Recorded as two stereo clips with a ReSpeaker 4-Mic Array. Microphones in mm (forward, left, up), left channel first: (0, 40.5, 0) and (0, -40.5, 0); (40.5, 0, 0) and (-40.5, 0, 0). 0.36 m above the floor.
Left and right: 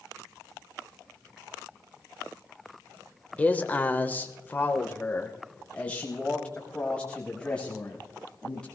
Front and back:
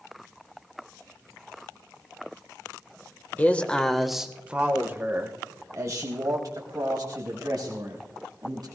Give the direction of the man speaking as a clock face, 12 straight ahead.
11 o'clock.